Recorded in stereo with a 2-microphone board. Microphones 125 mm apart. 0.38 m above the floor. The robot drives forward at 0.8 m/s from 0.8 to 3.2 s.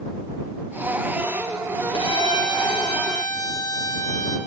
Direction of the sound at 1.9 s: 40° left (ahead or behind).